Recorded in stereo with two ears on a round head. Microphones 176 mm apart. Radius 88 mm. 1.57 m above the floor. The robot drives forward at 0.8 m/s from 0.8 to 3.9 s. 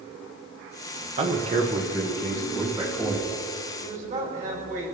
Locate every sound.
1.2 s a man speaking: 35° right (ahead or behind), 1.2 m; by 3.3 s 15° right (ahead or behind), 3 m
3.8 s a man speaking: 45° right (ahead or behind), 7 m